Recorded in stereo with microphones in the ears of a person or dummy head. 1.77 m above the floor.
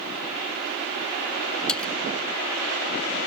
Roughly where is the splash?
Centre.